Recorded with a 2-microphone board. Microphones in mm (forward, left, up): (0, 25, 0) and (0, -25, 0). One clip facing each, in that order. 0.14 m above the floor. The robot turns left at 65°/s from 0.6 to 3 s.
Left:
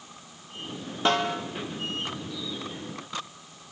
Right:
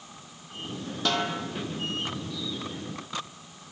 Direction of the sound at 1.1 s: 30° left (ahead or behind).